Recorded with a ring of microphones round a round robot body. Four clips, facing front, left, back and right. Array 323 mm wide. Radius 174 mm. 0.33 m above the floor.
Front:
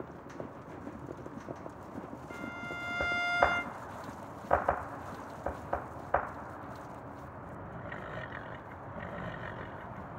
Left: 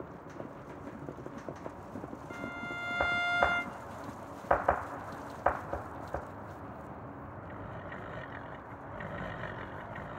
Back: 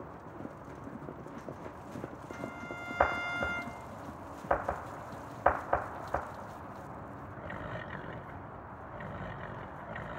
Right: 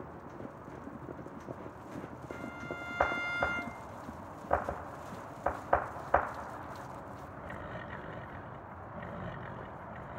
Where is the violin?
50° left, 1.3 m.